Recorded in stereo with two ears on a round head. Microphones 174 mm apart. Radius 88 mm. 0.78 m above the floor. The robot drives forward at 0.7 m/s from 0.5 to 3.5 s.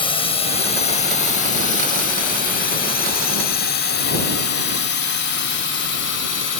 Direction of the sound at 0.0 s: 30° left (ahead or behind).